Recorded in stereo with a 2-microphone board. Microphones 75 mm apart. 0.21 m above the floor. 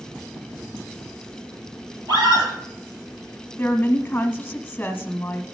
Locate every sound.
2.1 s a scream: 70° right (ahead or behind), 4.5 m
3.6 s a woman speaking: 25° left (ahead or behind), 1.1 m